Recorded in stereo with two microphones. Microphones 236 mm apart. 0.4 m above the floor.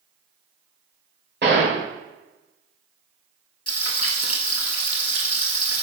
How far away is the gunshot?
About 1.6 m.